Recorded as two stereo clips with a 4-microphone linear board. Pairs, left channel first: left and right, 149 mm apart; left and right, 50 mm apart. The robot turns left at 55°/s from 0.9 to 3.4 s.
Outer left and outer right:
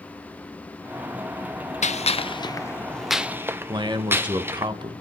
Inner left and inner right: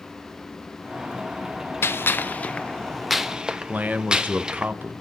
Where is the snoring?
I don't hear snoring.